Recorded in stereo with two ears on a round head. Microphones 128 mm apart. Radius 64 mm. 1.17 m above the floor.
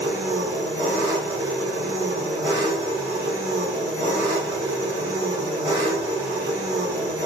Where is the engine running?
25° right (ahead or behind), 0.9 m.